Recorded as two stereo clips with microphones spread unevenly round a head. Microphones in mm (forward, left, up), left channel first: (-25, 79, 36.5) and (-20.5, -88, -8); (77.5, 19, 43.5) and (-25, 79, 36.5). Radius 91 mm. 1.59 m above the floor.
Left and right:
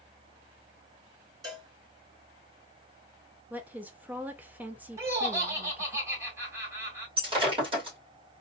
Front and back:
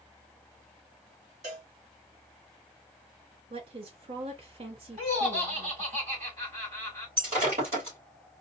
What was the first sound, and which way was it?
A cowbell, 160° right.